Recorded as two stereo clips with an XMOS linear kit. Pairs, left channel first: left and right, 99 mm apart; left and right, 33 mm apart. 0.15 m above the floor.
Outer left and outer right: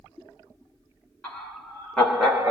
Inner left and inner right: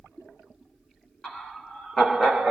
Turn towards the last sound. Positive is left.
turn(degrees=-5)  # may be behind; listen again after turning